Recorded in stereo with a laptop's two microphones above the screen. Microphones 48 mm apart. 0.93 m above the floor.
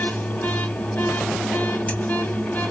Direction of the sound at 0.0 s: 35° left (ahead or behind).